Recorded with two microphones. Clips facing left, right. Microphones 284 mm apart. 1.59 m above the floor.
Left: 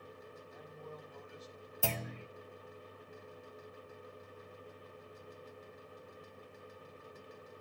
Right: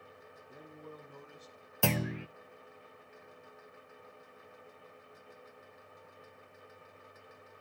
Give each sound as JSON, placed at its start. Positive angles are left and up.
{"t": 0.5, "sound": "a man speaking", "side_deg": -55, "distance_m": 4.5}
{"t": 1.8, "sound": "a clunk", "side_deg": -80, "distance_m": 0.9}